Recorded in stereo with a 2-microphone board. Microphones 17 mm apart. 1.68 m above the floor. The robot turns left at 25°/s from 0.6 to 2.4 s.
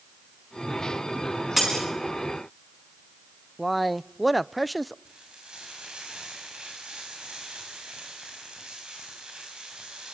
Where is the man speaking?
Centre (ahead or behind), 0.5 m.